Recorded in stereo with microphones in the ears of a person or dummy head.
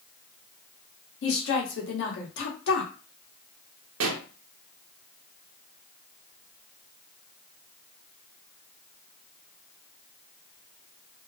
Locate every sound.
1.2 s a woman speaking: 75° left (ahead or behind), 1.2 m
4.0 s a pop: 75° right (ahead or behind), 0.5 m